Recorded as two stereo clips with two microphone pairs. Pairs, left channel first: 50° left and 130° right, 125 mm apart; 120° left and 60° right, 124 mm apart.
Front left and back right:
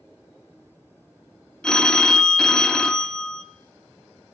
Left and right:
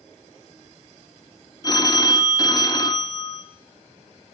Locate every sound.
1.6 s a phone ringing: 130° left, 0.7 m